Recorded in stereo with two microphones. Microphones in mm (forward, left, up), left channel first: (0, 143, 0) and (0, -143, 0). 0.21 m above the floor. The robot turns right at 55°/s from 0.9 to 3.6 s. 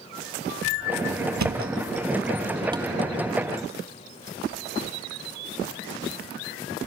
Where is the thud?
80° right, 0.5 m; by 2.9 s 10° right (ahead or behind), 0.5 m.